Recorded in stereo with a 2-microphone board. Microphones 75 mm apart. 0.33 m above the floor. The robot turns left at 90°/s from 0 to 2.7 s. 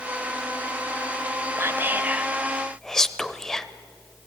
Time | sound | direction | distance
1.6 | whispering | 30° right (ahead or behind) | 1.1 m